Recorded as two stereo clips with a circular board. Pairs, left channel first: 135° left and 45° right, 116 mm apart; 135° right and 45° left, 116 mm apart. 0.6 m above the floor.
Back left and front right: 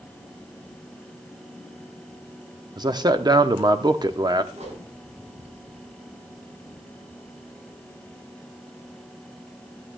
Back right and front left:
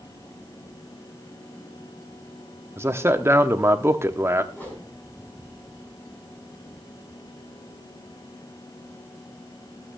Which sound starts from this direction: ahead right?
A whoosh, at 4.5 s.